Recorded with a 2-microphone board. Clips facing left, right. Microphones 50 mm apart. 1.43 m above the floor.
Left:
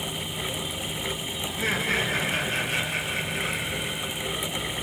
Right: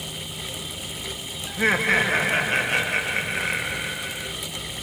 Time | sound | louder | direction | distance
1.5 | laughter | right 7 dB | 40° right (ahead or behind) | 1.6 m